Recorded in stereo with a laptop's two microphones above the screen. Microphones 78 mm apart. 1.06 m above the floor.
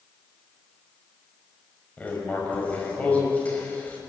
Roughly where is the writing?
Centre.